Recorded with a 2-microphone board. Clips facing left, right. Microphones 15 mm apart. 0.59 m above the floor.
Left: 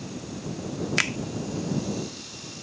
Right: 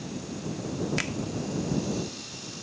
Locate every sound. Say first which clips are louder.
1.0 s a finger snap: left 6 dB; 40° left (ahead or behind)